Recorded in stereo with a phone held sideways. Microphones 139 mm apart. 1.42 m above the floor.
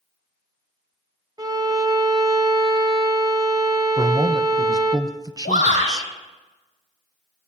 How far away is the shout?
About 6 m.